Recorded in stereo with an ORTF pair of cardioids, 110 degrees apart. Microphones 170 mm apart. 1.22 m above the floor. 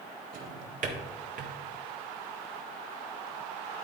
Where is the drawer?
55° right, 1.7 m.